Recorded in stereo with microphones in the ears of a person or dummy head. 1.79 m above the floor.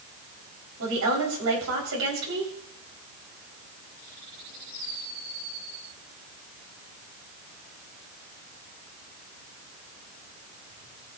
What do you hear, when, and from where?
0.8 s a woman speaking: 75° right (ahead or behind), 5.5 m